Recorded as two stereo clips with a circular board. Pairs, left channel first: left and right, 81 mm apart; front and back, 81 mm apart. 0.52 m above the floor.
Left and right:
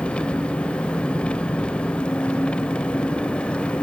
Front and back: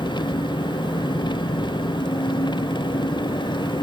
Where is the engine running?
15° left, 0.9 m.